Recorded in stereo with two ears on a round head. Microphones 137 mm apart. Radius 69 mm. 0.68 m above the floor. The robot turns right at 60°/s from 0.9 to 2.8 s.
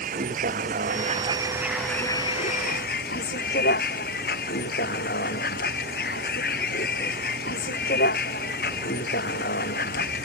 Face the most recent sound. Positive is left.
turn(degrees=60)